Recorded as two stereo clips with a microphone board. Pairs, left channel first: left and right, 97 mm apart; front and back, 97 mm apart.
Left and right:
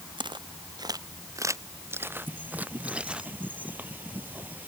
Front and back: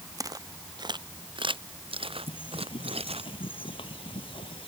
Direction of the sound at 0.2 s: 125° right.